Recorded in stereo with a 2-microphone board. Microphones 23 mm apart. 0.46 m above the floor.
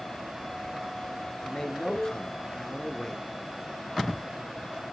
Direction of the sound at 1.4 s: 30° left (ahead or behind).